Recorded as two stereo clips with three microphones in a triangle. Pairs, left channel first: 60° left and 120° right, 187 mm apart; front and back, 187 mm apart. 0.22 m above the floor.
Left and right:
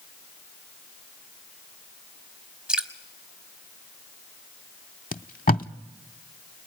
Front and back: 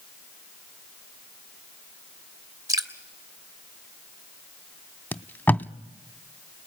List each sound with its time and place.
2.7 s dripping: 165° left, 1.0 m
5.1 s tape being pulled: 80° left, 0.5 m